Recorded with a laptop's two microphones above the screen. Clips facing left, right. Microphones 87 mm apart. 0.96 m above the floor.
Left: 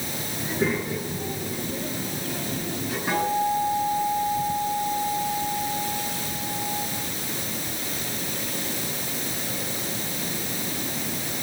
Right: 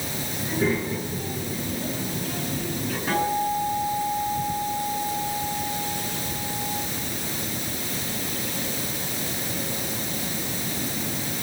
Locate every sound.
0.4 s a child speaking: 10° left (ahead or behind), 9.5 m; by 3.0 s 5° left (ahead or behind), 10.5 m
3.1 s a guitar: 10° left (ahead or behind), 8.5 m